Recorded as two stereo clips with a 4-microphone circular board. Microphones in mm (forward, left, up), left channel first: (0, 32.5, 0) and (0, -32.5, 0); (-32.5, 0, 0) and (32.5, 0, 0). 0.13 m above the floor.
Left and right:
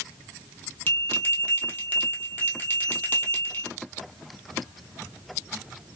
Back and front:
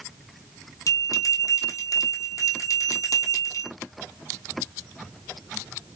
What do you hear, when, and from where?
0.9 s a bell: 150° left, 1.2 m